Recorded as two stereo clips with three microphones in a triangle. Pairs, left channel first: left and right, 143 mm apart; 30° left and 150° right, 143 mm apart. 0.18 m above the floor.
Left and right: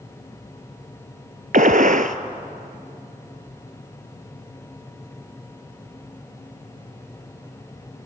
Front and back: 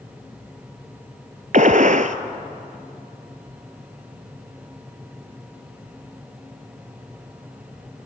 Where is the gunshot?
115° right, 0.8 m.